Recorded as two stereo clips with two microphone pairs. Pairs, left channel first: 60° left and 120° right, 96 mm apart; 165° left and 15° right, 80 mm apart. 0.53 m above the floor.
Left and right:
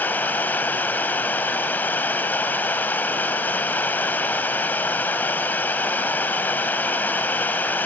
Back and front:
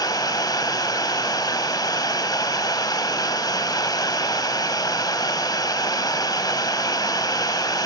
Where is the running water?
130° left, 1.3 m.